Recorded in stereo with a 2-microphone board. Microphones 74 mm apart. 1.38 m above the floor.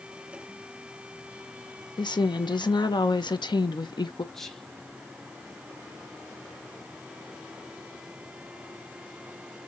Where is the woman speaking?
90° left, 1.1 m.